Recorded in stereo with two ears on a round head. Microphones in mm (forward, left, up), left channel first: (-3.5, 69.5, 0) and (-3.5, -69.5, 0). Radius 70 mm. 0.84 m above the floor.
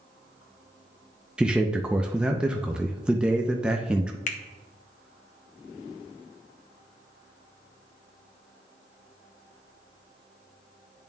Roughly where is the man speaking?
Centre.